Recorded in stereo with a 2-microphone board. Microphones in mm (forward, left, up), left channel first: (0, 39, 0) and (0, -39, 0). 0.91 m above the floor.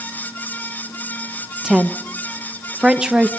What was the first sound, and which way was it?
A woman speaking, 5° right (ahead or behind).